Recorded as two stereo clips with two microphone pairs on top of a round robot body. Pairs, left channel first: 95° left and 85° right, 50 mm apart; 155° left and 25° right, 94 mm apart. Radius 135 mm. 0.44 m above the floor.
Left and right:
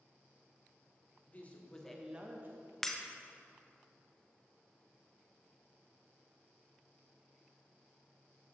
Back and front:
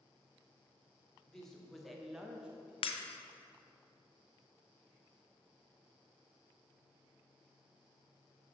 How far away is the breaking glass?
About 0.6 m.